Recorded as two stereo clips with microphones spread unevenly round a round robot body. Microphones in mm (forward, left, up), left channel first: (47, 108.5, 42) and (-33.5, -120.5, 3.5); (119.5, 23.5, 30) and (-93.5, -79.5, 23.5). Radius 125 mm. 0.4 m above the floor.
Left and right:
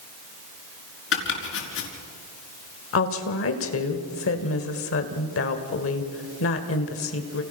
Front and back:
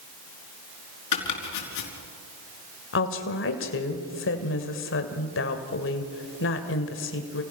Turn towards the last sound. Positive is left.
turn(degrees=45)